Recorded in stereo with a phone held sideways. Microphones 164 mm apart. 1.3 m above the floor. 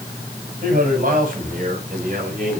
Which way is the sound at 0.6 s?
60° right (ahead or behind).